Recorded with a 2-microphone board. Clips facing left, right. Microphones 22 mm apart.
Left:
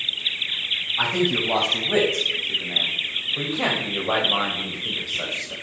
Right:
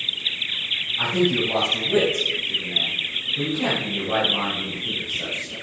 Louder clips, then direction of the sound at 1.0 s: Right 1 dB; 35° left (ahead or behind).